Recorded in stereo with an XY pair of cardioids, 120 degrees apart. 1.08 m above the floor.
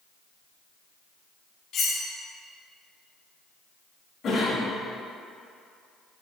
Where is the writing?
No writing in this recording.